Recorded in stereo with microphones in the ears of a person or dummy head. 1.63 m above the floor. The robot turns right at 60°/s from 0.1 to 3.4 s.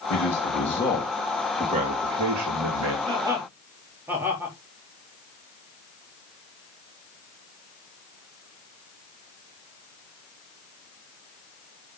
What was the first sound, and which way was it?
A man speaking, 115° left.